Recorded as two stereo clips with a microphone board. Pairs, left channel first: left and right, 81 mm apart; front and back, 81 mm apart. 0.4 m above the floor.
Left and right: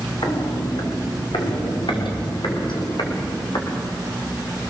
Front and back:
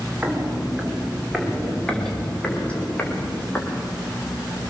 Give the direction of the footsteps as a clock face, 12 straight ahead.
8 o'clock.